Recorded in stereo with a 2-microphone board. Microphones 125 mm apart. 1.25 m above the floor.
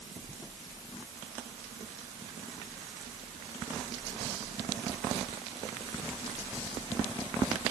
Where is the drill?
No drill in this recording.